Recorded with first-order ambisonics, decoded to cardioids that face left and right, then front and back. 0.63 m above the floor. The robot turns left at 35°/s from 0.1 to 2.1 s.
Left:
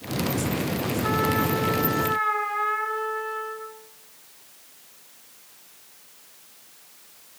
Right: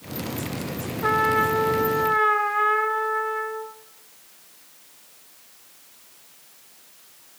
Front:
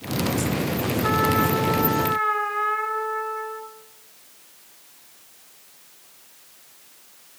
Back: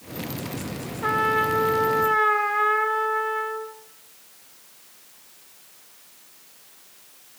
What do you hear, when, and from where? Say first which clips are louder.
1.0 s a trumpet: right 5 dB, back 1 dB; 130° right, 1.5 m; by 3.7 s 170° right, 1.5 m